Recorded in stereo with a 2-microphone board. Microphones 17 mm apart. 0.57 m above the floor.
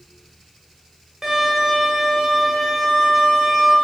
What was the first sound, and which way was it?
A violin, 35° right (ahead or behind).